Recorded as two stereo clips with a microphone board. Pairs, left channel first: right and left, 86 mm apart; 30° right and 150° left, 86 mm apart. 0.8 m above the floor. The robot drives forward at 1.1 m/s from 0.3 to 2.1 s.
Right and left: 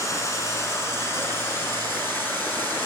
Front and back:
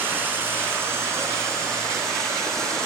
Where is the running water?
145° right, 4 m; by 2.9 s 155° right, 6 m.